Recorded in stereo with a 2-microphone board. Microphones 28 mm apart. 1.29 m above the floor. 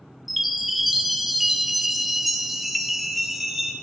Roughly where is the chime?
Centre.